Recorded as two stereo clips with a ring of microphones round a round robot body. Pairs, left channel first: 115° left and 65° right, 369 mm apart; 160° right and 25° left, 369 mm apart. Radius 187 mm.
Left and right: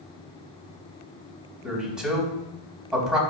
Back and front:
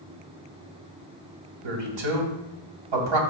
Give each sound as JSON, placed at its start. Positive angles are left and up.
{"t": 1.6, "sound": "a man speaking", "azimuth_deg": 20, "distance_m": 3.0}